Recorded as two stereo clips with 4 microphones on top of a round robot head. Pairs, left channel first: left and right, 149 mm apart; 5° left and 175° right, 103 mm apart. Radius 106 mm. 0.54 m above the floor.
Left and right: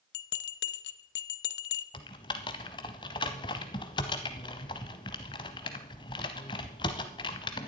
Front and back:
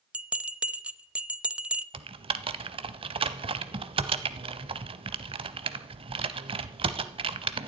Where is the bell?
105° left, 0.5 m.